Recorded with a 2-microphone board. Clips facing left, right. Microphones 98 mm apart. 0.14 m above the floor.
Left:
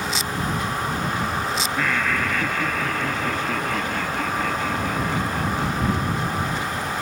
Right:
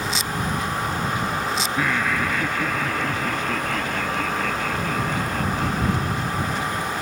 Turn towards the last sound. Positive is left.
turn(degrees=10)  # may be behind; listen again after turning